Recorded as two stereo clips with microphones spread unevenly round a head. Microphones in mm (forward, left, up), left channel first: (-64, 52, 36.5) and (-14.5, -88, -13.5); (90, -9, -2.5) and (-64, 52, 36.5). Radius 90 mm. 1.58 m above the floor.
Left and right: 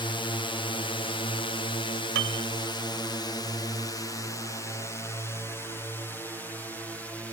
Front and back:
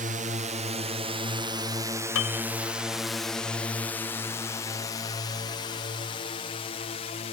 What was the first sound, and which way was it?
A drone, 175° left.